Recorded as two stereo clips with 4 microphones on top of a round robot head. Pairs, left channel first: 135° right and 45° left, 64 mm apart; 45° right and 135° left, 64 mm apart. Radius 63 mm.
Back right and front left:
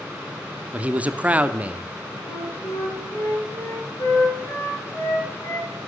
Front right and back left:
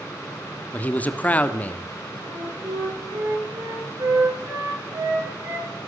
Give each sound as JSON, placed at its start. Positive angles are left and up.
{"t": 0.7, "sound": "a man speaking", "azimuth_deg": -5, "distance_m": 1.3}
{"t": 2.2, "sound": "a flute", "azimuth_deg": 175, "distance_m": 6.5}